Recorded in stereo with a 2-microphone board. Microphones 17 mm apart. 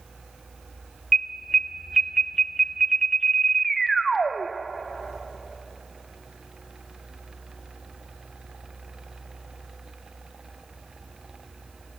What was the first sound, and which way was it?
An alarm, 20° left (ahead or behind).